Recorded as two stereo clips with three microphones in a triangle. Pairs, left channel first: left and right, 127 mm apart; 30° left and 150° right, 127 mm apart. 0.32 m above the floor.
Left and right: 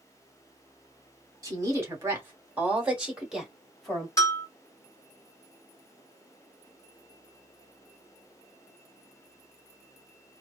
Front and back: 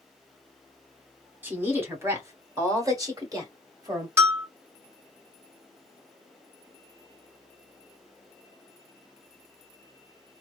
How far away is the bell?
About 1.9 m.